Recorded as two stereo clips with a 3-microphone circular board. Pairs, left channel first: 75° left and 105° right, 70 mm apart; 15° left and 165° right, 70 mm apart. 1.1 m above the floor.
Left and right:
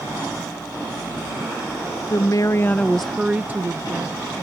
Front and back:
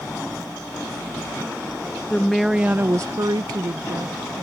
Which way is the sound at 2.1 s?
90° left.